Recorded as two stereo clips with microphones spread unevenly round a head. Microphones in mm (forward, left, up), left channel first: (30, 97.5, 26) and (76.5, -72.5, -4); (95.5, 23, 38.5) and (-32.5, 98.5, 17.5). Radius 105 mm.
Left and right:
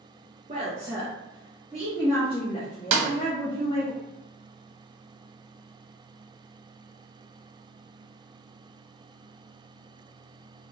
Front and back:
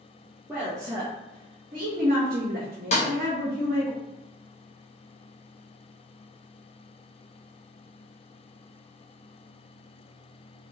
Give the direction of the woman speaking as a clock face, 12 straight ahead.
4 o'clock.